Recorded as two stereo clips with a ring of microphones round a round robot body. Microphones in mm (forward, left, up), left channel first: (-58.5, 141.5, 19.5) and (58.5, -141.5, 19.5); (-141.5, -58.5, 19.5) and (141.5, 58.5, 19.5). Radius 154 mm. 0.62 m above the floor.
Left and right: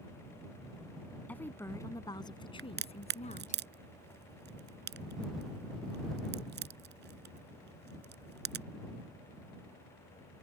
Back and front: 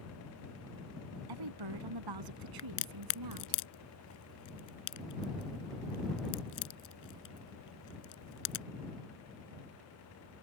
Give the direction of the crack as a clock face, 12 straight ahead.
4 o'clock.